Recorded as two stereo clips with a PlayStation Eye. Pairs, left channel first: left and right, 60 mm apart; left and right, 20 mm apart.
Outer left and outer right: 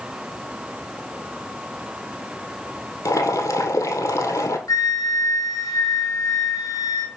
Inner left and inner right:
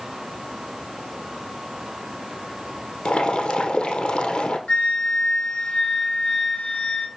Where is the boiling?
60° left (ahead or behind), 1.4 m.